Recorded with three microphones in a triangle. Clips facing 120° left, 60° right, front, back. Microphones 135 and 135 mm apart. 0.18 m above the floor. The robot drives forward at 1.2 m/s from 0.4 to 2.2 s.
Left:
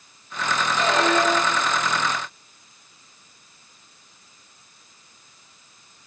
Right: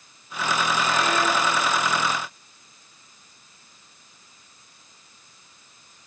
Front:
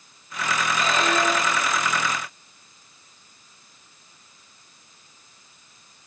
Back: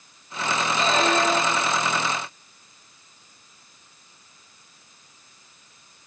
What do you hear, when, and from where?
0.8 s a squeak: 120° left, 4 m; by 1.8 s 130° left, 5 m